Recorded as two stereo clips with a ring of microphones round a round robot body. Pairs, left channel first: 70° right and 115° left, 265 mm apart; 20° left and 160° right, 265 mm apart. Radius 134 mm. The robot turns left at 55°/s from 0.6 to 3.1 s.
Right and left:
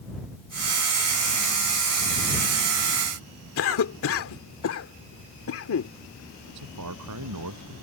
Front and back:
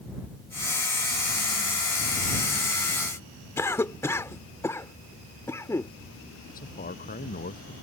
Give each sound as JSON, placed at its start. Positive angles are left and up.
{"t": 3.6, "sound": "a cough", "azimuth_deg": -55}
{"t": 6.5, "sound": "a man speaking", "azimuth_deg": 85}